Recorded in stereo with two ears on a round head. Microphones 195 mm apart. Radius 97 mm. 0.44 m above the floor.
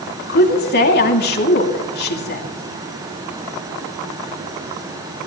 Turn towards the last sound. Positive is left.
turn(degrees=50)  # may be behind; listen again after turning